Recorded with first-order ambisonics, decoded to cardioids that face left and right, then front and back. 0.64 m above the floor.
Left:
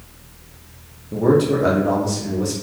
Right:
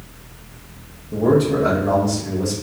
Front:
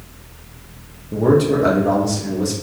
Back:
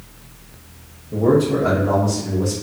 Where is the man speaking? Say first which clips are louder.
Even, front 1 dB; 30° left, 0.6 m.